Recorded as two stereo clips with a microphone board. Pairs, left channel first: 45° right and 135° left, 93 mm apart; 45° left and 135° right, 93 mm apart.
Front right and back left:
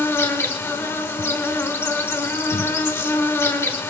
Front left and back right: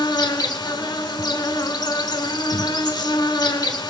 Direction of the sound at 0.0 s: 10° left.